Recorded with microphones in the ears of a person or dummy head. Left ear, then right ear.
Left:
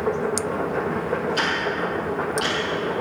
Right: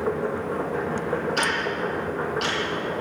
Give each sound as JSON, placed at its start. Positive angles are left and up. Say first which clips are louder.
{"t": 0.0, "sound": "a machine running", "louder": "left 2 dB", "side_deg": 15, "distance_m": 1.1}
{"t": 1.4, "sound": "ticking", "louder": "left 1 dB", "side_deg": -20, "distance_m": 3.0}